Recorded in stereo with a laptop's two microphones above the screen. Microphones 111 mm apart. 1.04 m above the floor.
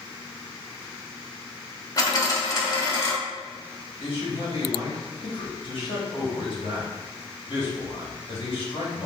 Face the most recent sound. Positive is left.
turn(degrees=55)  # may be behind; listen again after turning